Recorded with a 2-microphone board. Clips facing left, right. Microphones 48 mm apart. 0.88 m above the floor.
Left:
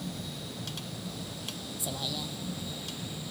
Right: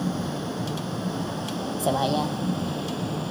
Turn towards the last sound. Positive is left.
turn(degrees=-55)  # may be behind; listen again after turning